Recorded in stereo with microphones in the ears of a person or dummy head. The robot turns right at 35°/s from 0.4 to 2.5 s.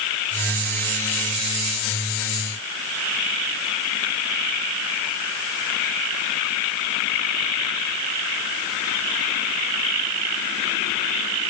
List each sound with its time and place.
Only background noise.